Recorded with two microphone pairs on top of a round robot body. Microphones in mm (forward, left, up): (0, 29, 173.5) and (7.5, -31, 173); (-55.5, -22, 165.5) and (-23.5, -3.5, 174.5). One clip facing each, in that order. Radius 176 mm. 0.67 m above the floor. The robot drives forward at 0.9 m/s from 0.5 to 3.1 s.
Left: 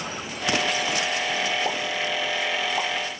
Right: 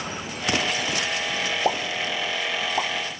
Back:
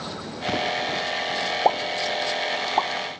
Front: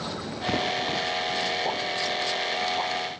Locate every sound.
1.6 s a pop: 150° right, 1.3 m; by 2.9 s 165° right, 2.5 m